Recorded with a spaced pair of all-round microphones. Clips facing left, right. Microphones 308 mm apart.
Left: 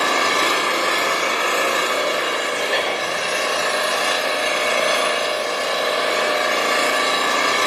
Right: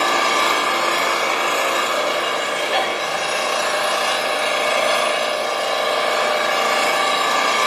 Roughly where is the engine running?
Left.